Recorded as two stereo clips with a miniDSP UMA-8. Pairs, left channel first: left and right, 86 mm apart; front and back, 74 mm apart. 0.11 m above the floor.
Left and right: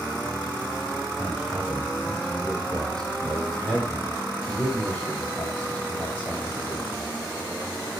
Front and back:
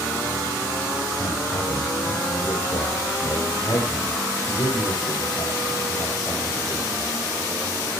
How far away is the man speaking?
About 4 m.